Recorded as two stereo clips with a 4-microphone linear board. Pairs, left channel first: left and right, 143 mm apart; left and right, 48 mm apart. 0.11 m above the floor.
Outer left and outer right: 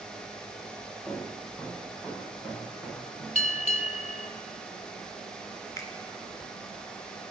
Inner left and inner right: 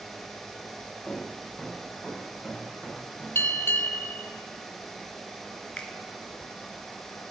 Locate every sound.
1.1 s footsteps: 5° right (ahead or behind), 7 m
3.4 s a bell: 55° left (ahead or behind), 0.6 m
5.8 s a finger snap: 25° left (ahead or behind), 1.0 m